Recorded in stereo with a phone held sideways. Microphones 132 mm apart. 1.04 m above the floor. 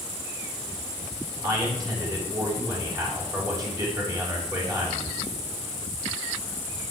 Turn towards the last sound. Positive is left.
turn(degrees=-25)  # may be behind; listen again after turning